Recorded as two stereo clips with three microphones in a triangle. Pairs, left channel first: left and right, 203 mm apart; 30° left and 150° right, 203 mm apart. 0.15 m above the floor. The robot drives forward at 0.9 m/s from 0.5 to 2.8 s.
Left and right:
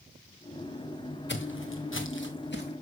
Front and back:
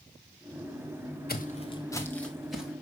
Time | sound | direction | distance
1.3 | footsteps | 65° left | 0.8 m